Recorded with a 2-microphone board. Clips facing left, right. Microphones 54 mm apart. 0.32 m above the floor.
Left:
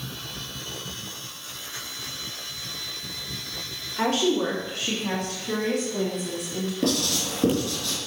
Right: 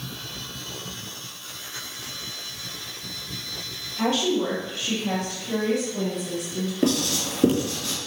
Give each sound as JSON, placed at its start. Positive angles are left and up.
{"t": 4.0, "sound": "a woman speaking", "side_deg": 55, "distance_m": 3.5}
{"t": 6.8, "sound": "writing", "side_deg": -15, "distance_m": 3.5}